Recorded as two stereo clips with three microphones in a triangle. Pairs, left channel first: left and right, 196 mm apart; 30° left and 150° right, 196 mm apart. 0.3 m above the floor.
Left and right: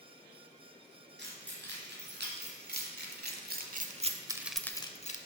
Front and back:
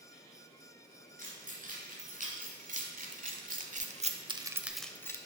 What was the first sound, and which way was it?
Keys jangling, 105° right.